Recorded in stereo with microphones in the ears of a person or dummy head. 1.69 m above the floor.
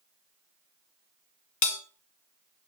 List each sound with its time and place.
1.6 s a bell: 65° left (ahead or behind), 1.7 m